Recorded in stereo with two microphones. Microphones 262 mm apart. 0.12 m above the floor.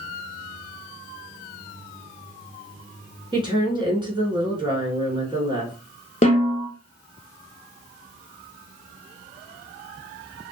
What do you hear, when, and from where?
3.3 s a woman speaking: 20° right (ahead or behind), 1.1 m
6.2 s a snare drum: 30° left (ahead or behind), 0.6 m